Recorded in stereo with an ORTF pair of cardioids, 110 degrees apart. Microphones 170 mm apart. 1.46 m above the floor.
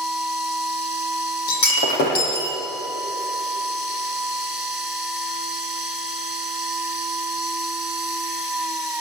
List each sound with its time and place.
0.0 s a machine running: 5° right, 3.5 m
1.5 s breaking glass: 65° left, 7.5 m